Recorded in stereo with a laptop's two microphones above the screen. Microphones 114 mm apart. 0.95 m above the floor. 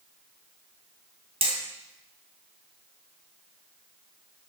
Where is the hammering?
55° right (ahead or behind), 3 m.